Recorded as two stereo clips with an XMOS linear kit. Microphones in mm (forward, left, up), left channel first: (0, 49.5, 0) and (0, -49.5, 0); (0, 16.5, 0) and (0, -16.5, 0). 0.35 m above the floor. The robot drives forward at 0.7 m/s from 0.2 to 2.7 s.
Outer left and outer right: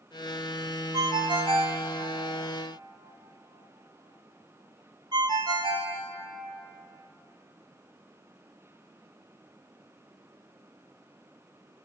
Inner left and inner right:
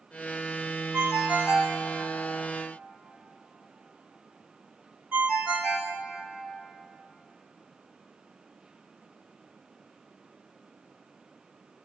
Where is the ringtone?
50° right (ahead or behind), 1.0 m.